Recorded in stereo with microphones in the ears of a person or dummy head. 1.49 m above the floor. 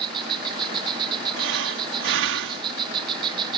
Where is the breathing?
75° right (ahead or behind).